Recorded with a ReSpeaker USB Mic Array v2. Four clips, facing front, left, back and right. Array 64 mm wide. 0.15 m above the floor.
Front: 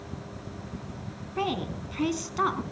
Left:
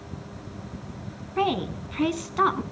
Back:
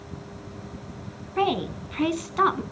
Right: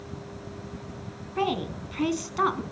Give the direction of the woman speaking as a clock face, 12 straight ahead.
7 o'clock.